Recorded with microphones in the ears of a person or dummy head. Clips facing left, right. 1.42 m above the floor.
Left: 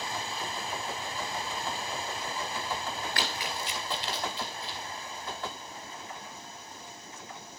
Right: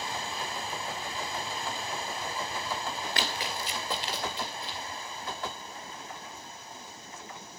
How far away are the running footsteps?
About 1.5 m.